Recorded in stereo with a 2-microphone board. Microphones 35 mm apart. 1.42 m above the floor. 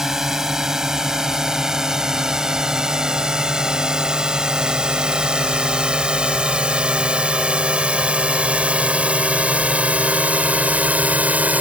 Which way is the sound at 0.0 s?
15° right (ahead or behind).